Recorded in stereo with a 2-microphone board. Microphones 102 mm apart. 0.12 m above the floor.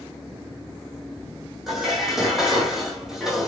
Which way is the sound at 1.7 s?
5° right (ahead or behind).